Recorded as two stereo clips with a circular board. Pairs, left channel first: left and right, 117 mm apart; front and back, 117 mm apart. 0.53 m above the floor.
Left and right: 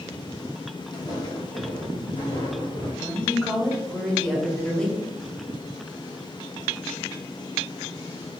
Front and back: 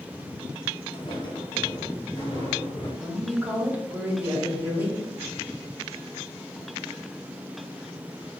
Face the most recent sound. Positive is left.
turn(degrees=155)